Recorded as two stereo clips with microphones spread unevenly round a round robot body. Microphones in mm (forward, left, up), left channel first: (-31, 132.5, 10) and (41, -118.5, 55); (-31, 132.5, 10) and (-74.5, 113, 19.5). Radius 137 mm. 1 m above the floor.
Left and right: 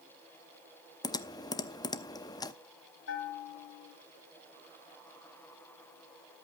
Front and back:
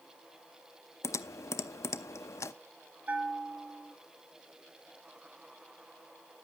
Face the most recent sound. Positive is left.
turn(degrees=155)